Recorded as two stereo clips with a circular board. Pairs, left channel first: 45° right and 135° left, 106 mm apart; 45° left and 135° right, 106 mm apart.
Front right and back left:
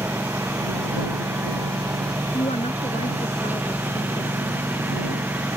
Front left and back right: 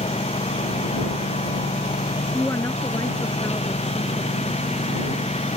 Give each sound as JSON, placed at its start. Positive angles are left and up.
{"t": 0.0, "sound": "a lawn mower", "azimuth_deg": 65}
{"t": 2.3, "sound": "a woman speaking", "azimuth_deg": -20}